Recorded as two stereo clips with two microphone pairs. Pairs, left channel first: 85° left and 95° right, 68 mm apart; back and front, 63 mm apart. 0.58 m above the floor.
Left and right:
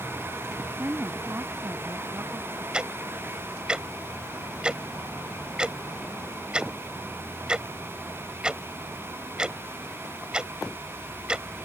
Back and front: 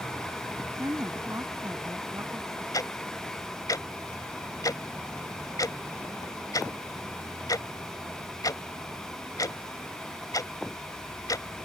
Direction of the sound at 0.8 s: 35° right.